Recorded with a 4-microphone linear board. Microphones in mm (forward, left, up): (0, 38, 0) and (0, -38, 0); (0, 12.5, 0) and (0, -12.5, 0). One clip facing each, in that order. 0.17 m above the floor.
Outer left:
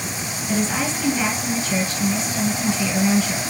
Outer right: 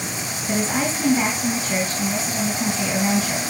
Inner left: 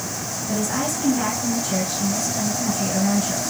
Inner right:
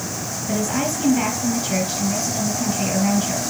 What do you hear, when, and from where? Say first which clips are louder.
0.5 s a woman speaking: even, inner right 2 dB; 40° right (ahead or behind), 3.5 m